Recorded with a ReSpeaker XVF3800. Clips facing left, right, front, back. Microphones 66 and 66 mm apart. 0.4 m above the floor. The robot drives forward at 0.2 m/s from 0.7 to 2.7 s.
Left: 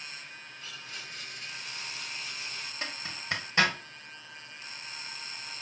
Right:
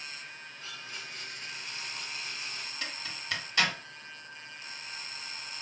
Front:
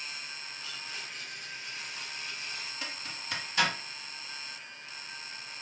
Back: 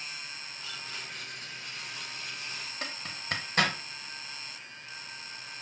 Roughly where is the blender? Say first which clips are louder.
Right 1 dB, back 2 dB; behind right.